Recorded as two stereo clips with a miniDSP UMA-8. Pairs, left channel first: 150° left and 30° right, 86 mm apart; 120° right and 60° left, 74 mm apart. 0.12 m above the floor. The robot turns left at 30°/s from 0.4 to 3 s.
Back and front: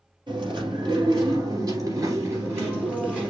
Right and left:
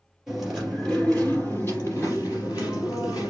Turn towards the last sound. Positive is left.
turn(degrees=-100)